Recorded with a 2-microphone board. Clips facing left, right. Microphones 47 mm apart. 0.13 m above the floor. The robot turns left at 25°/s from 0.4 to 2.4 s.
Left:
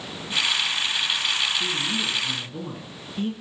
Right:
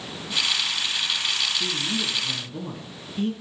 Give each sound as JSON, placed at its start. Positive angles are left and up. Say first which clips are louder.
{"t": 1.6, "sound": "a man speaking", "louder": "left 1 dB", "side_deg": -5, "distance_m": 1.3}